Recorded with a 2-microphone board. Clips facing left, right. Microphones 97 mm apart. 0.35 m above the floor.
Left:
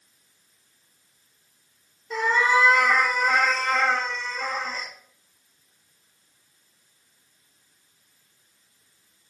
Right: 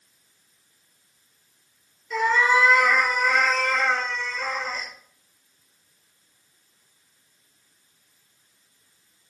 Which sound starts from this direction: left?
A cat meowing, at 2.1 s.